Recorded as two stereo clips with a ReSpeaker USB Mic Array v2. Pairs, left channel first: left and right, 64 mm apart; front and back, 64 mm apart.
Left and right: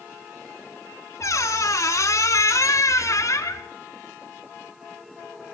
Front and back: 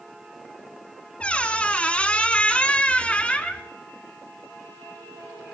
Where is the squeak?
65° left, 0.9 m.